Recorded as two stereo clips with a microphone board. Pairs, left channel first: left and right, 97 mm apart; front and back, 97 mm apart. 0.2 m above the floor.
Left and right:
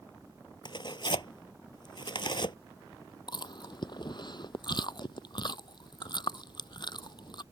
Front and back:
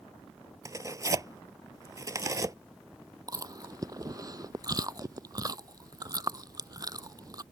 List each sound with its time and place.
0.7 s tearing paper: 125° left
3.3 s chewing: 130° left